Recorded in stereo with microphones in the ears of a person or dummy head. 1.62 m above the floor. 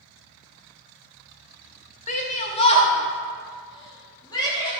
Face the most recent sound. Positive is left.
turn(degrees=25)  # may be behind; listen again after turning